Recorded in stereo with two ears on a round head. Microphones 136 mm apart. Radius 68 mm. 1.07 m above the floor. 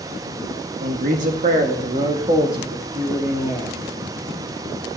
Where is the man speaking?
65° right (ahead or behind), 2 m; by 3.8 s 15° right (ahead or behind), 2.5 m.